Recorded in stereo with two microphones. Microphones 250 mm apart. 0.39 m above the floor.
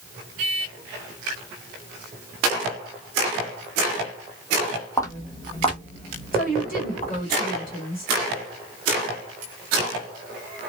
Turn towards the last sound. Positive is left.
turn(degrees=35)  # may be behind; listen again after turning